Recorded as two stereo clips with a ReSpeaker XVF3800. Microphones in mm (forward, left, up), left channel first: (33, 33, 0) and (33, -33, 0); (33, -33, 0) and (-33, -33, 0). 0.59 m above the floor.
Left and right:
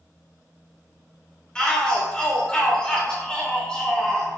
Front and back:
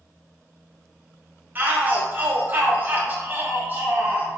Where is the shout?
155° left, 0.7 m.